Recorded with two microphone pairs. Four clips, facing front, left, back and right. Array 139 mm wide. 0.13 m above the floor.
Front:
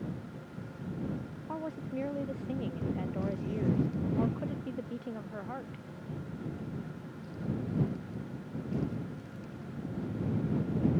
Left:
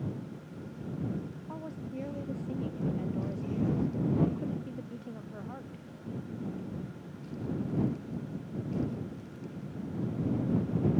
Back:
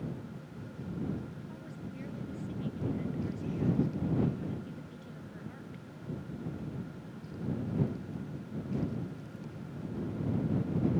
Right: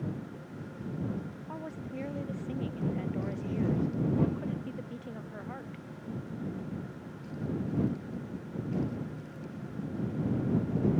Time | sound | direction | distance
1.5 | a woman speaking | 10° right | ?